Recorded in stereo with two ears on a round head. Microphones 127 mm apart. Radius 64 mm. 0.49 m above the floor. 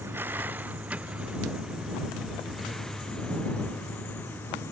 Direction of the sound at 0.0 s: 15° right (ahead or behind).